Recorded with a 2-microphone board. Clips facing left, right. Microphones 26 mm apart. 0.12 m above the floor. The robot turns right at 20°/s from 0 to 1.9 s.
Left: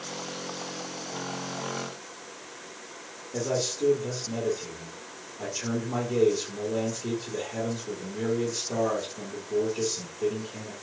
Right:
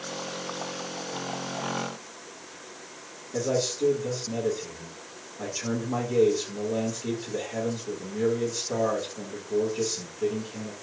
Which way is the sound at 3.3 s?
Centre (ahead or behind).